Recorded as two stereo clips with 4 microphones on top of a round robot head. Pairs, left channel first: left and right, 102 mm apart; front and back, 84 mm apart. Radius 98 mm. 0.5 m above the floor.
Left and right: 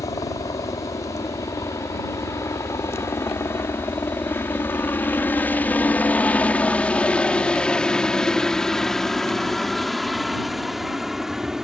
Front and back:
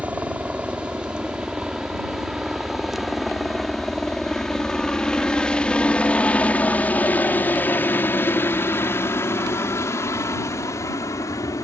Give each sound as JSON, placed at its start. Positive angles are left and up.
{"t": 0.0, "sound": "a helicopter", "azimuth_deg": 115}